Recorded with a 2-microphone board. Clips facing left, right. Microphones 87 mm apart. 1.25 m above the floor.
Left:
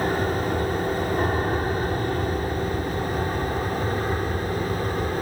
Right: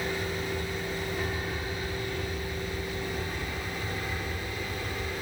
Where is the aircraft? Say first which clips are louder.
Left 9 dB; 50° left (ahead or behind); by 5.2 s 45° left (ahead or behind).